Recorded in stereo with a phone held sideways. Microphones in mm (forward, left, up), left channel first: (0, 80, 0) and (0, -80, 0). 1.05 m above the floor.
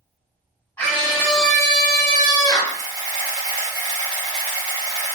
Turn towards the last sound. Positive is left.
turn(degrees=-50)  # may be behind; listen again after turning